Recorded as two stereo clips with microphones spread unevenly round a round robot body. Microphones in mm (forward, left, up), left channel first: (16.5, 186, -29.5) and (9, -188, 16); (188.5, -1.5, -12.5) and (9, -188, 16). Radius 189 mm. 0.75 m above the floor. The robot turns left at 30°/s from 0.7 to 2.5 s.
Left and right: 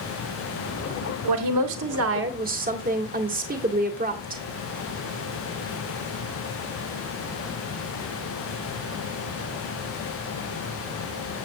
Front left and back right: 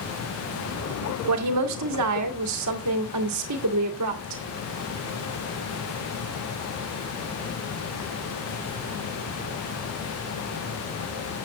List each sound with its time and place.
1.3 s a woman speaking: 125° right, 1.9 m; by 4.4 s 160° right, 1.9 m